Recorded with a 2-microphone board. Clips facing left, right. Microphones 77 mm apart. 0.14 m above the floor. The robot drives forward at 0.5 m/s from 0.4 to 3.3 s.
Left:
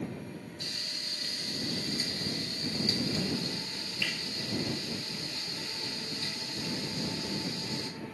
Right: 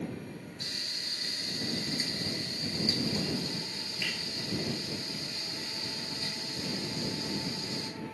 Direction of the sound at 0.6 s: 35° right (ahead or behind).